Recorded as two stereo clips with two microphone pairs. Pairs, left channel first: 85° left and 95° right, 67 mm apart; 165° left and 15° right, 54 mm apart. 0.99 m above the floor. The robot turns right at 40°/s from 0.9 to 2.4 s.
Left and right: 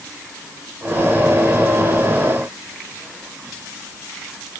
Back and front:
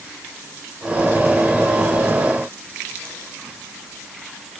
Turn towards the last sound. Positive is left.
No sound to turn to.